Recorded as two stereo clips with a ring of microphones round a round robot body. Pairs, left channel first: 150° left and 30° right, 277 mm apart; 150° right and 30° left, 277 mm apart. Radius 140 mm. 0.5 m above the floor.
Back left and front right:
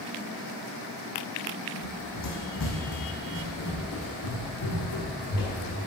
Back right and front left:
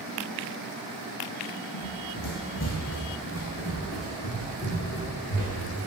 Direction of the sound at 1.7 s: 170° right.